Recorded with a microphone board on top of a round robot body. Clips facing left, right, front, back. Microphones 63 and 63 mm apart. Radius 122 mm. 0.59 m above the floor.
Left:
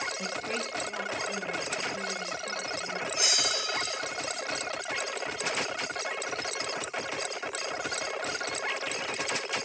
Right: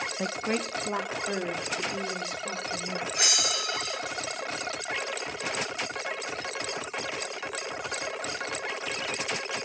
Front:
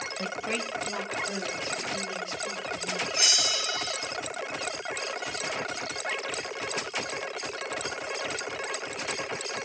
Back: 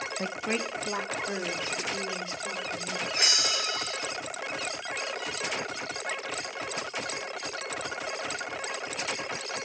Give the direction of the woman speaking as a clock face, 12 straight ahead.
4 o'clock.